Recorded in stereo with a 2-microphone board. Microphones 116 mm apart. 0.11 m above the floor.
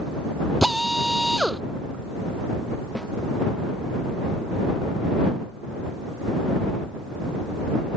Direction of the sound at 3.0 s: 5° left (ahead or behind).